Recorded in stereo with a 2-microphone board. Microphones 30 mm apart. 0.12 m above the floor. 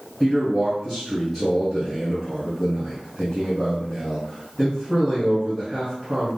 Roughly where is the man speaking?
Centre.